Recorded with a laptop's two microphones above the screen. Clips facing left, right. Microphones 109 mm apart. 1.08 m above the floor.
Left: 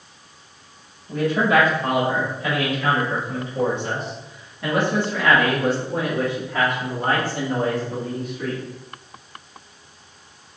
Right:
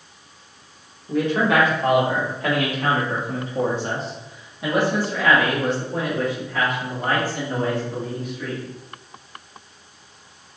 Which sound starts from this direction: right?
A man speaking, at 1.1 s.